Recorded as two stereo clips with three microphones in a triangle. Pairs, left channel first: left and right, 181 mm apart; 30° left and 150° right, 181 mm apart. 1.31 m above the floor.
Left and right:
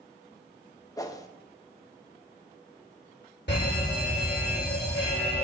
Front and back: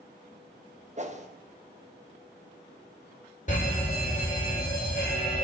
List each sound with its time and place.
1.0 s a whoosh: 160° left, 1.1 m
3.5 s a fire alarm: 75° left, 8 m